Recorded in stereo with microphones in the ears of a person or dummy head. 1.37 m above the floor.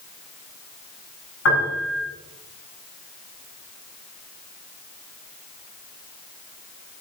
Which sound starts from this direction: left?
A piano, at 1.4 s.